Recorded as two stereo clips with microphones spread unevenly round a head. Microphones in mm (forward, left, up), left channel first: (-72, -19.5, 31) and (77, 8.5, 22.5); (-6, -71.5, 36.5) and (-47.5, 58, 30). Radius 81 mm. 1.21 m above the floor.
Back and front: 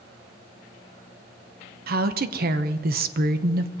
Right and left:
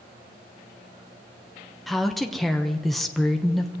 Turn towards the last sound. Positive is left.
turn(degrees=20)